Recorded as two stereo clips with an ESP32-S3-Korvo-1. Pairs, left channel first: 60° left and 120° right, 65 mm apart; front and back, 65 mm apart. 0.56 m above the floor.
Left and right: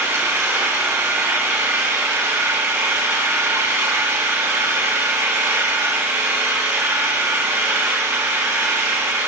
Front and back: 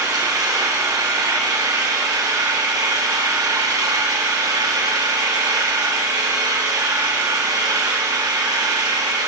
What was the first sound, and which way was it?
An engine running, 170° right.